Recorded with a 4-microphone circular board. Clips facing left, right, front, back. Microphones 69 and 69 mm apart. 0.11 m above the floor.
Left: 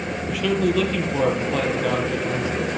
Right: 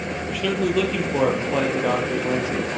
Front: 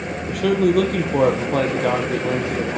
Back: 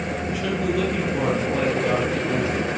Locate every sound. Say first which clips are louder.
0.3 s a man speaking: left 2 dB, front 9 dB; straight ahead, 2 m; by 2.8 s 25° right, 4 m